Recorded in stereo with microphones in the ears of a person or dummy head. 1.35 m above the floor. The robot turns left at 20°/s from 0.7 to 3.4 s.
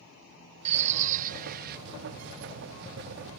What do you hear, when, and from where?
0.7 s a bird: 35° right (ahead or behind); by 1.8 s 50° right (ahead or behind)